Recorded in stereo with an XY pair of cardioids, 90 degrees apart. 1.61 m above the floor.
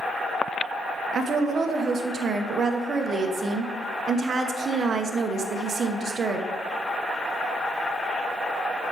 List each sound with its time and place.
1.1 s a woman speaking: 50° right, 1.1 m